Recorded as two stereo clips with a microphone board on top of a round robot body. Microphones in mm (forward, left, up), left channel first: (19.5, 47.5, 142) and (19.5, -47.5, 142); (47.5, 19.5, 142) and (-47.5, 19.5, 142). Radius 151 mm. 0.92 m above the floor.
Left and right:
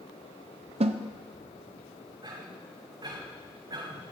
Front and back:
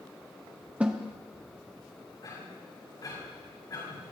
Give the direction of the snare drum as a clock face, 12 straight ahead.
3 o'clock.